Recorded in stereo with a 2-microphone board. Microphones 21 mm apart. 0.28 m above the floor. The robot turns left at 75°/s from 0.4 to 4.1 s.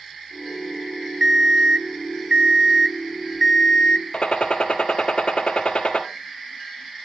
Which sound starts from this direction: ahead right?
An alarm clock, at 1.2 s.